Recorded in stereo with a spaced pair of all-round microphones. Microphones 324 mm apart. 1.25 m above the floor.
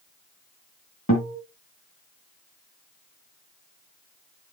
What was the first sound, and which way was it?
A guitar, 40° left (ahead or behind).